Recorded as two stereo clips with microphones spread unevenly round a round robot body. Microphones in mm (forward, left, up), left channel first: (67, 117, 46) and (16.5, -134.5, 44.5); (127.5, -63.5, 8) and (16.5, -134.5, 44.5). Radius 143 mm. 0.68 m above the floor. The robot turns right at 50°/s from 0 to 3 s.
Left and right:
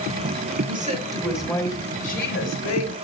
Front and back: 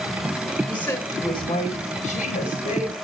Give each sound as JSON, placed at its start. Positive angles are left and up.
{"t": 0.7, "sound": "a woman speaking", "azimuth_deg": -45, "distance_m": 3.5}